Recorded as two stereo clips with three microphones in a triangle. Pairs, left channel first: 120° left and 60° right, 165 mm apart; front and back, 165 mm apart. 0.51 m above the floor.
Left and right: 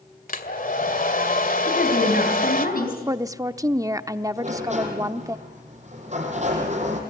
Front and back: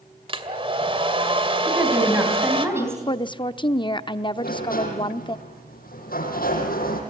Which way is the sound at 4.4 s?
20° right.